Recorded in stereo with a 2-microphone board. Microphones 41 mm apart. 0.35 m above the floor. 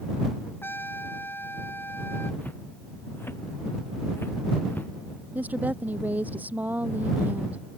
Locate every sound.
0.6 s a trumpet: 65° left (ahead or behind)
2.4 s footsteps: 45° left (ahead or behind); by 4.9 s 55° left (ahead or behind)
5.3 s a woman speaking: 45° right (ahead or behind)